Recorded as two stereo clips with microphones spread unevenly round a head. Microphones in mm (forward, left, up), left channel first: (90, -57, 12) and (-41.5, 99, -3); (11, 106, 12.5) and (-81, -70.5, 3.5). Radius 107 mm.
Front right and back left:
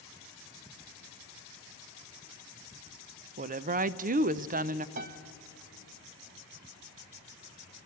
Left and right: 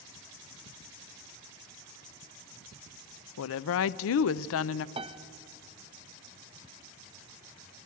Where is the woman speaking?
75° left, 0.5 m.